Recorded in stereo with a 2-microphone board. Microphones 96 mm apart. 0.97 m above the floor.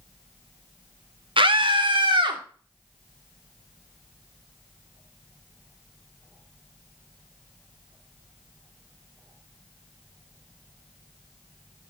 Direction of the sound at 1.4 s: 60° right (ahead or behind).